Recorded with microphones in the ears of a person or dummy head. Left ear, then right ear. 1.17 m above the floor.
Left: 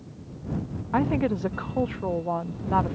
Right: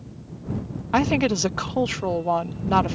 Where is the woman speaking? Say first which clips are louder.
Right 4 dB; 65° right (ahead or behind).